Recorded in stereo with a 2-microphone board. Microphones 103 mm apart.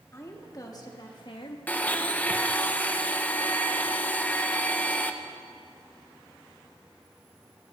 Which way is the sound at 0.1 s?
30° left (ahead or behind).